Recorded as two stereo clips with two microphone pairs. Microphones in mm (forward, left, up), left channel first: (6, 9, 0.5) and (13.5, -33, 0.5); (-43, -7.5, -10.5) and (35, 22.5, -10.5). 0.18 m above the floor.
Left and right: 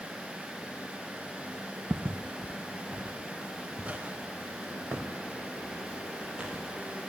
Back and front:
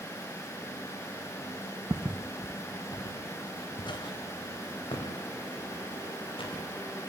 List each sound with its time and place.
1.9 s footsteps: 30° right, 0.9 m; by 6.6 s 145° right, 7 m